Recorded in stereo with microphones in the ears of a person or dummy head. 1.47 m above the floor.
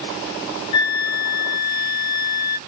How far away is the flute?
About 0.6 m.